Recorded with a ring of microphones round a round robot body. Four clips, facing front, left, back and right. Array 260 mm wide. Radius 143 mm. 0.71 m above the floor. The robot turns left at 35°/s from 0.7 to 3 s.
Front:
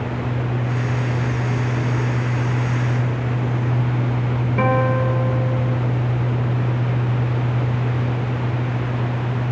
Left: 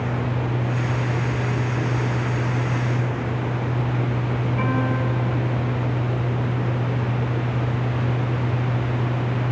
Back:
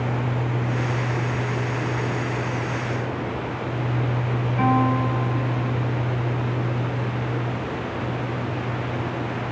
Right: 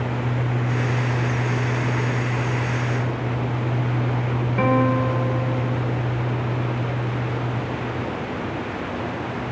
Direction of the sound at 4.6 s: 20° right.